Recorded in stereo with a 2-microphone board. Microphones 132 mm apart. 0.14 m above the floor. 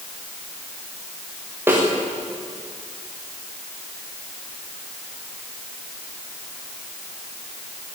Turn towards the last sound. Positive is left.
turn(degrees=-15)  # may be behind; listen again after turning